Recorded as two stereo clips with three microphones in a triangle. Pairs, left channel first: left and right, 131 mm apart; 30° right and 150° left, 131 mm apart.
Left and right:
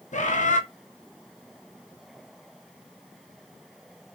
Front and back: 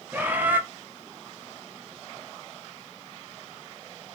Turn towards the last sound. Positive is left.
turn(degrees=75)